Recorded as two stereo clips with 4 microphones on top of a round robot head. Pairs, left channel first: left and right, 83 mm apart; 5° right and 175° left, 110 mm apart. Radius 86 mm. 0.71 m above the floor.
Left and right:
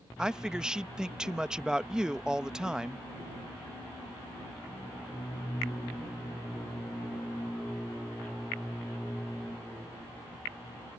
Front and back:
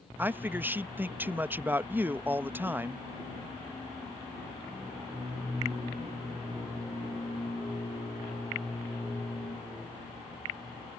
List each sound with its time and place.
0.2 s a man speaking: 155° right